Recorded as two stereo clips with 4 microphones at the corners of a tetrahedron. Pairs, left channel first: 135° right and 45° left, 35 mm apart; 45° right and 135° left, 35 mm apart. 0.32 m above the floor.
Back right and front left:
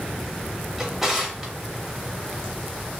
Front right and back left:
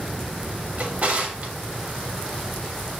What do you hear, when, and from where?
0.8 s a drawer: 120° left, 0.6 m